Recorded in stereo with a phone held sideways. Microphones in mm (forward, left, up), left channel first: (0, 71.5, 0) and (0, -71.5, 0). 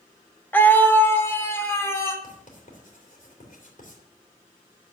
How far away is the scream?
About 1.2 m.